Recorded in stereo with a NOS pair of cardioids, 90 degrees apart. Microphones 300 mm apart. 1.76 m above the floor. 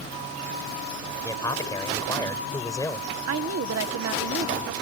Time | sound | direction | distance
1.2 | a man speaking | 10° left | ?
3.3 | a woman speaking | 55° right | ?